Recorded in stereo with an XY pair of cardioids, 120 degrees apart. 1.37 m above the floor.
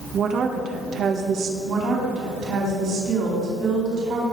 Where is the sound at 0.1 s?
50° right, 1.9 m.